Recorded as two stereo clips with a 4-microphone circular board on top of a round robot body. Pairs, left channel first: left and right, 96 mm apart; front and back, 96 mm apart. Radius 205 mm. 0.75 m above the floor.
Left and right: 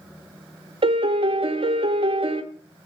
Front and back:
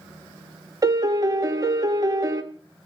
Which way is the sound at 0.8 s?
125° right.